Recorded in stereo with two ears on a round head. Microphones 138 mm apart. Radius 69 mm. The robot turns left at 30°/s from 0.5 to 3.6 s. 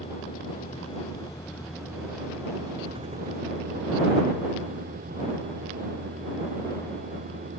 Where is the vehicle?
40° left; by 7.6 s 55° right.